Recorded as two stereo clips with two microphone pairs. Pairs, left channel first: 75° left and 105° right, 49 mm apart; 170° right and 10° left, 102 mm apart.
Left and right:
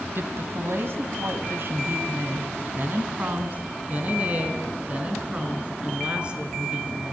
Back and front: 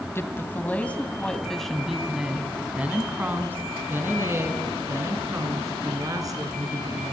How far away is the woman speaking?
About 2.5 m.